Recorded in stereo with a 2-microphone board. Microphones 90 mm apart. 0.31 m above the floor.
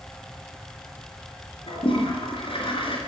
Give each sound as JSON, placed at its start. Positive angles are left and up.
{"t": 1.7, "sound": "a toilet flushing", "side_deg": 65, "distance_m": 4.0}